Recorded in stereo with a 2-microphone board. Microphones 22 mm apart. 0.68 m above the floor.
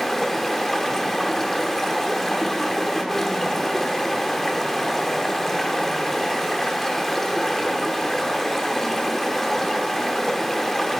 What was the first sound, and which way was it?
Running water, 15° left (ahead or behind).